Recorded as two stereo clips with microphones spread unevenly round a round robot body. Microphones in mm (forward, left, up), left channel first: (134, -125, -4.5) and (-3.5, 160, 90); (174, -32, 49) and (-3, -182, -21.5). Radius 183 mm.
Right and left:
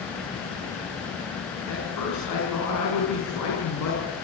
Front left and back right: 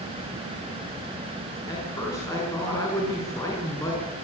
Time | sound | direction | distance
1.7 | a man speaking | 40° right | 6 m